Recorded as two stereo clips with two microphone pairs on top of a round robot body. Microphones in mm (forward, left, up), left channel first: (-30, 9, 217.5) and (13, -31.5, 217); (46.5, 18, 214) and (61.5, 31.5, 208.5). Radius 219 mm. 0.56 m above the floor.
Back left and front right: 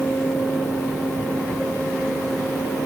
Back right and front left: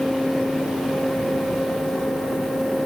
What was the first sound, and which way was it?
Only background noise.